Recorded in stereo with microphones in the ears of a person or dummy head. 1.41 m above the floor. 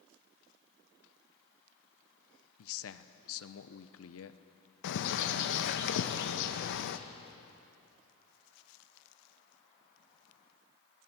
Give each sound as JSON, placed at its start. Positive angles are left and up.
{"t": 2.6, "sound": "a man speaking", "side_deg": 70, "distance_m": 1.0}
{"t": 4.8, "sound": "a bird", "side_deg": 55, "distance_m": 1.0}